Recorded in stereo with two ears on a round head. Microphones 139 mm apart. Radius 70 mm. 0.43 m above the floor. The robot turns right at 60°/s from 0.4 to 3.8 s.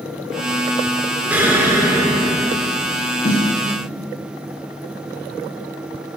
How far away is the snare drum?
About 2.5 m.